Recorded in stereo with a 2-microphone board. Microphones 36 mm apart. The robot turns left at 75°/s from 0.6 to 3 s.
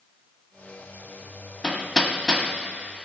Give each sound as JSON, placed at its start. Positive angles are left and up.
{"t": 1.6, "sound": "hammering", "side_deg": 20, "distance_m": 1.5}